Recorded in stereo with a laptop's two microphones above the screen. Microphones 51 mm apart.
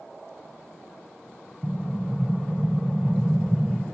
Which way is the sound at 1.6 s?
15° right (ahead or behind).